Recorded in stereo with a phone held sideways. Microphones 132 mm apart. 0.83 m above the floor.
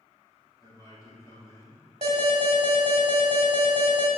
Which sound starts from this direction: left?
A man speaking, at 0.6 s.